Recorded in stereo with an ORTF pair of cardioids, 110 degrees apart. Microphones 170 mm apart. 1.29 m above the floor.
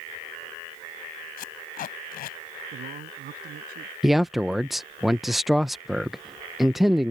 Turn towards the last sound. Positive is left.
turn(degrees=0)